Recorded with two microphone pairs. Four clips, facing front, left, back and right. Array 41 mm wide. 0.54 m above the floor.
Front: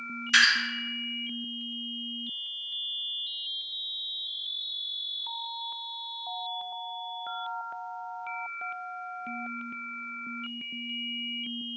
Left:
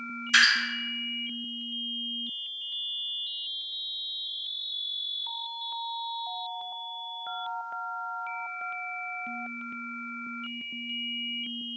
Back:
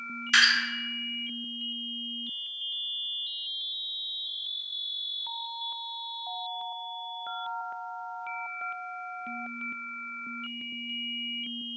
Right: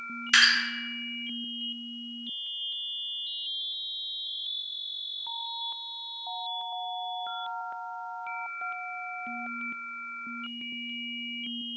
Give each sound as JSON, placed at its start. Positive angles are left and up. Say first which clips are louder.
{"t": 0.3, "sound": "dripping", "louder": "even, even", "azimuth_deg": -110, "distance_m": 1.7}